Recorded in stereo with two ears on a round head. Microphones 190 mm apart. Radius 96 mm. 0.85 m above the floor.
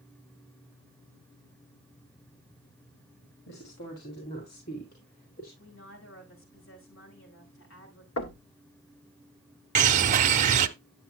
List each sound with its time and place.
3.5 s a woman speaking: 50° left (ahead or behind), 2.5 m; by 5.5 s 45° left (ahead or behind), 4 m
5.6 s a woman speaking: 70° left (ahead or behind), 7 m
8.2 s knocking: 70° left (ahead or behind), 1.6 m
9.8 s a bird: 35° right (ahead or behind), 0.8 m